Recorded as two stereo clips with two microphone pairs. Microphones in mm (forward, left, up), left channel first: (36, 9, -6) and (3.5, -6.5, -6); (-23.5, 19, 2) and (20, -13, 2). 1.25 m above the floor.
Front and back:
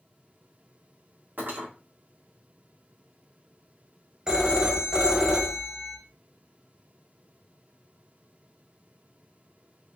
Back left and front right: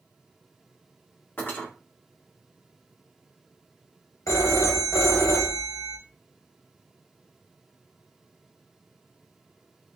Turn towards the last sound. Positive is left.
turn(degrees=130)